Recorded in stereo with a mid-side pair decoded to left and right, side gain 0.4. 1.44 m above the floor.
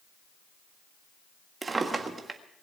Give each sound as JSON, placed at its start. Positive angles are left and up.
{"t": 1.6, "sound": "a drawer", "azimuth_deg": -35, "distance_m": 1.6}